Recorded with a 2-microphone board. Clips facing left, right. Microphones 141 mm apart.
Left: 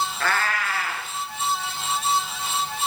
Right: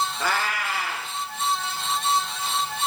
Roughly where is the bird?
No bird in this recording.